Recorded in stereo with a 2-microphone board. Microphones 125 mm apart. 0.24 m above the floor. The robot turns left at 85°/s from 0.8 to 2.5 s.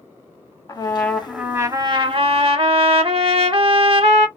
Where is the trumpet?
40° left, 0.6 m; by 4.3 s 105° right, 0.6 m.